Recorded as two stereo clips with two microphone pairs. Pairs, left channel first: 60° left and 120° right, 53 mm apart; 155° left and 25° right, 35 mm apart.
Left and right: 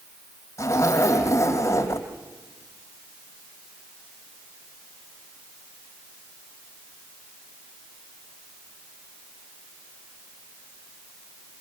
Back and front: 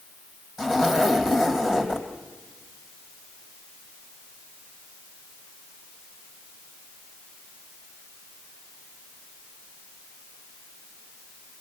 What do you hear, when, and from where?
0.6 s a zipper: 55° left, 4 m